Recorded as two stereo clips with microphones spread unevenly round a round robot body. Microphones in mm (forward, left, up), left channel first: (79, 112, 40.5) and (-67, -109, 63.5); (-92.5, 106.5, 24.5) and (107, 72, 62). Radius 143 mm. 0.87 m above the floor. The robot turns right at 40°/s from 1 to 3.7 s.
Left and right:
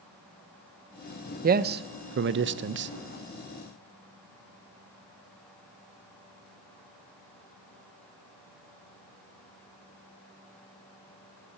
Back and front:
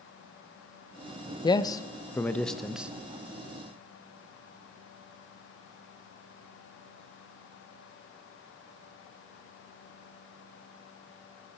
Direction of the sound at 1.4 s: 165° right.